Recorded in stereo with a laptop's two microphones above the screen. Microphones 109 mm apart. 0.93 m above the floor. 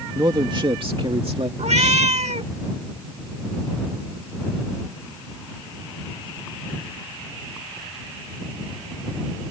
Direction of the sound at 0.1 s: 40° right (ahead or behind).